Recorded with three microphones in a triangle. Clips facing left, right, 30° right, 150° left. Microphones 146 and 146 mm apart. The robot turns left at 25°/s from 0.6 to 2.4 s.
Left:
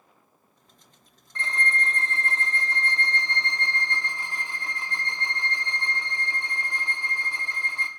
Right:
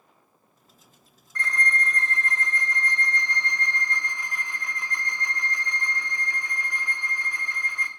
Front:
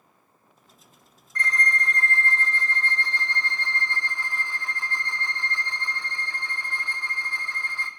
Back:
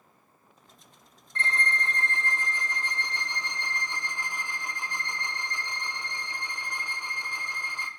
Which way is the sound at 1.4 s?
125° left.